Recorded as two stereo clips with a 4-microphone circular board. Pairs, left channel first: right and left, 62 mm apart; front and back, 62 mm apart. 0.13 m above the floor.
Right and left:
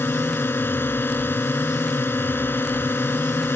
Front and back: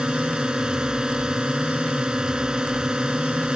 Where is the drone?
110° right.